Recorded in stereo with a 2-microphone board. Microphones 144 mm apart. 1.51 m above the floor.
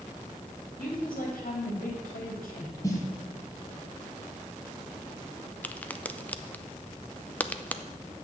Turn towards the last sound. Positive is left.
turn(degrees=10)  # may be behind; listen again after turning